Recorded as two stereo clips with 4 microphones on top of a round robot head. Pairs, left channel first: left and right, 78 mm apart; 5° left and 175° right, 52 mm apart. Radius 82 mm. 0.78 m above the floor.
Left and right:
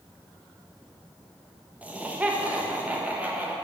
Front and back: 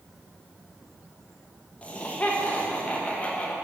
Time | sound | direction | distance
1.8 | laughter | 35° right | 1.0 m